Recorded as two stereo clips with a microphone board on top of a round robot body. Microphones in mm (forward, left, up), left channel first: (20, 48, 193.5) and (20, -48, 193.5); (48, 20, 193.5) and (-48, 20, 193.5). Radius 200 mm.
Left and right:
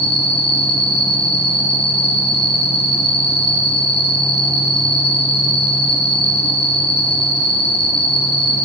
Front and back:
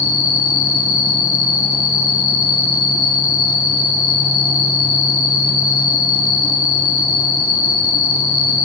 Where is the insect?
Straight behind, 1.5 m.